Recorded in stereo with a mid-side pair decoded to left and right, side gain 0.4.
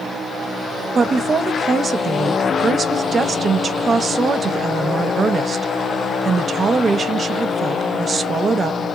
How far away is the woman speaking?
About 0.6 m.